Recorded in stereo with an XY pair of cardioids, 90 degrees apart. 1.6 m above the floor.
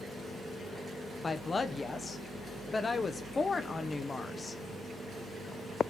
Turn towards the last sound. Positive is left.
turn(degrees=30)